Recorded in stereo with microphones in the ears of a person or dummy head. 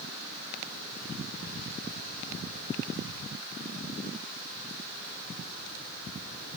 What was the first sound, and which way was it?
Only background noise.